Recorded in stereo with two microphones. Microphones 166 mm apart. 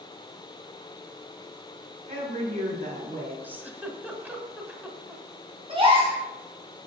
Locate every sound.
2.1 s a woman speaking: 40° right (ahead or behind), 4 m
3.4 s a giggle: 10° right (ahead or behind), 1.0 m
5.7 s a gasp: 30° right (ahead or behind), 3 m